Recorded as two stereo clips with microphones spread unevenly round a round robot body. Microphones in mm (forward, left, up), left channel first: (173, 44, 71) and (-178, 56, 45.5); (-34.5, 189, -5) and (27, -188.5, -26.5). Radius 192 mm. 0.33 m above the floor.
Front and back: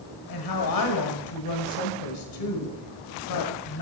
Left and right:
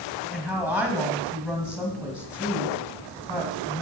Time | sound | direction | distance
0.3 | a woman speaking | 5° left | 1.8 m